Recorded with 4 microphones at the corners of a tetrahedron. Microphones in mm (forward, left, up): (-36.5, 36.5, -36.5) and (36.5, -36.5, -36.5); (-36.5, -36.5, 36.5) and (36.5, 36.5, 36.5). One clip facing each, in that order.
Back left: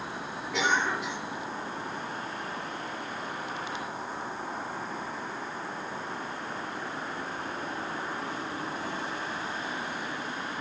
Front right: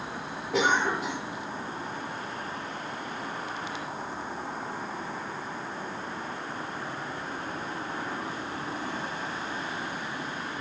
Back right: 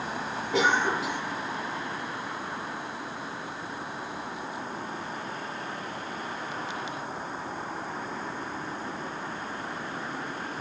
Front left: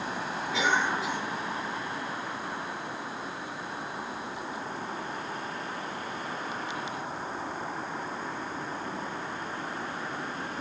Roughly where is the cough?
Right.